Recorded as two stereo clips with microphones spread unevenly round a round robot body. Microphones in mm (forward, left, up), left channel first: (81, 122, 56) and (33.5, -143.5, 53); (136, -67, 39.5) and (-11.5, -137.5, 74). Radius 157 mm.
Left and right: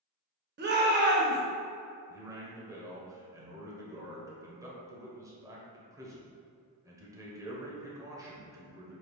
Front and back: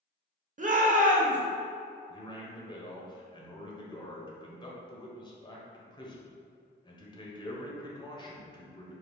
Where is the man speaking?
25° right, 1.3 m.